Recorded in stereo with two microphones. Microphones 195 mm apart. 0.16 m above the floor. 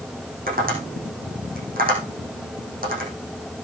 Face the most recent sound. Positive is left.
turn(degrees=-50)  # may be behind; listen again after turning